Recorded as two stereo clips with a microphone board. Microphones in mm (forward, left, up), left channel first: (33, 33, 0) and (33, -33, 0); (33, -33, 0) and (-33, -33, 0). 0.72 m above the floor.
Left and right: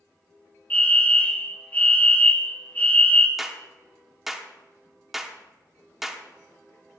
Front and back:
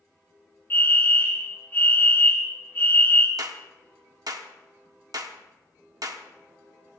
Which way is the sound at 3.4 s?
175° right.